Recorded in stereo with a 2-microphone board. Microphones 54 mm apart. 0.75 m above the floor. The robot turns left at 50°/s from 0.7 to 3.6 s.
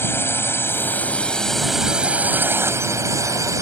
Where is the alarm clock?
I don't hear an alarm clock.